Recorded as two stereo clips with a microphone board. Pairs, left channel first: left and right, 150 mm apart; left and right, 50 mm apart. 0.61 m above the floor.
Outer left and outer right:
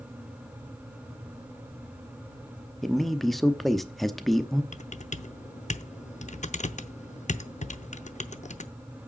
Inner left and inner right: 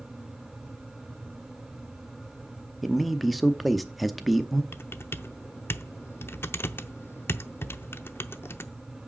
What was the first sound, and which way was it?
A man speaking, centre (ahead or behind).